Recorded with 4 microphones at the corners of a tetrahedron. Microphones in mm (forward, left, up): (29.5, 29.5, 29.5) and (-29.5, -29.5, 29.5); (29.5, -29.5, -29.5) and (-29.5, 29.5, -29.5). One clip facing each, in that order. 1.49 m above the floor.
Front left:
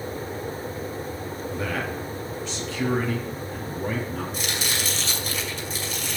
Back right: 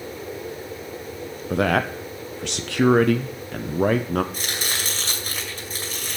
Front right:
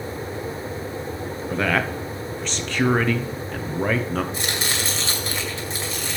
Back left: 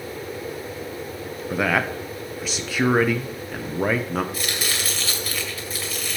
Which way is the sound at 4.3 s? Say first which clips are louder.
Front left 1 dB, front right 2 dB; 105° right.